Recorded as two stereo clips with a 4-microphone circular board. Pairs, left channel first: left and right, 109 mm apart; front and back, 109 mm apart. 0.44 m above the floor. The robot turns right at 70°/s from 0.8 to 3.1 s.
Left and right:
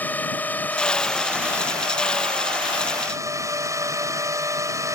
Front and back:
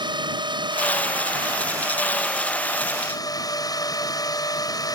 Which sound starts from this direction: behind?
A drone, at 0.0 s.